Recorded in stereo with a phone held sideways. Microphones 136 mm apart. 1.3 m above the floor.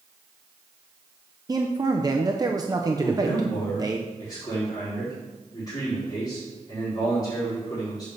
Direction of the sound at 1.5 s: 30° right (ahead or behind).